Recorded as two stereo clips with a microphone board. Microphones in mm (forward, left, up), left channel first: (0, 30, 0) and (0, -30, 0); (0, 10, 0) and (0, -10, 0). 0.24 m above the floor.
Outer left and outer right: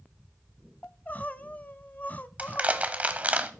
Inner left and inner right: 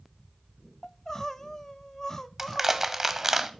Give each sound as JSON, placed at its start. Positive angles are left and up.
{"t": 0.8, "sound": "crying", "side_deg": 25, "distance_m": 0.6}
{"t": 2.4, "sound": "crushing", "side_deg": -25, "distance_m": 0.8}